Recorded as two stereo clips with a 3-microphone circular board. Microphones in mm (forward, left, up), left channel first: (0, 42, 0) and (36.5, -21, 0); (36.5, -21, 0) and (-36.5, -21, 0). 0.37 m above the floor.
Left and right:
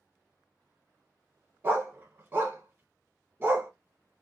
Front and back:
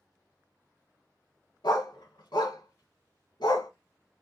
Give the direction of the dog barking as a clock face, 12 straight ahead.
12 o'clock.